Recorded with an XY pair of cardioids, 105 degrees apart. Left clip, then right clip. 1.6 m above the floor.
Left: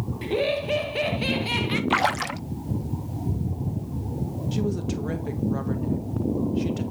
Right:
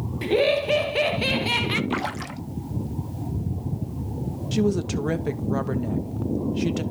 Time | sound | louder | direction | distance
0.2 | laughter | right 4 dB | 35° right | 1.9 m
1.9 | a splash | left 6 dB | 45° left | 0.5 m
4.5 | a woman speaking | right 6 dB | 45° right | 2 m